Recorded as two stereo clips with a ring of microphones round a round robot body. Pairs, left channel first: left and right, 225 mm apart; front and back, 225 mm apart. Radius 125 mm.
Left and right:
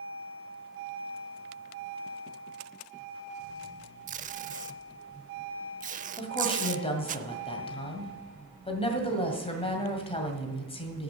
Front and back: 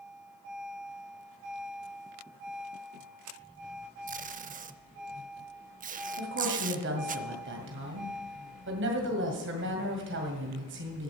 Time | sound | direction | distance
4.1 | tape being pulled | 135° right | 0.6 m
6.2 | a woman speaking | 150° left | 2 m